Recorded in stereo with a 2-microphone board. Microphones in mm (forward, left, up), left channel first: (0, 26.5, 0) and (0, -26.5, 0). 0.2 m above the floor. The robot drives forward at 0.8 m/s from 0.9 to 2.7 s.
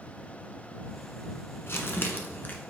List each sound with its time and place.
1.7 s crumpling: 50° left (ahead or behind), 1.4 m; by 2.5 s 40° left (ahead or behind), 1.7 m